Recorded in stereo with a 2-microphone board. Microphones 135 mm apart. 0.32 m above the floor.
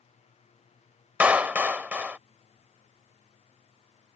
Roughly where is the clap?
Centre.